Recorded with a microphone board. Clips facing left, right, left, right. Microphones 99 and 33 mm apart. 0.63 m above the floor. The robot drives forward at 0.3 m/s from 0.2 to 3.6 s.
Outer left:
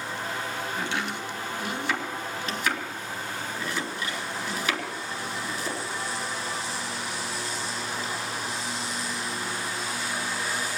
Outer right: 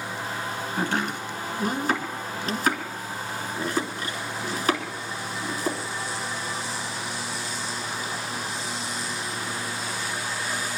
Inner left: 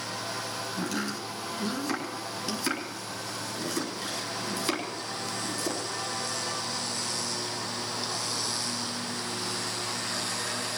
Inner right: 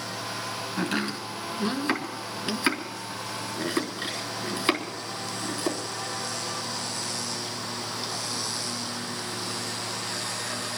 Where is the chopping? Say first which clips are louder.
Outer right 7 dB, inner right 5 dB; 40° right (ahead or behind), 3 m; by 5.8 s 35° right (ahead or behind), 4 m.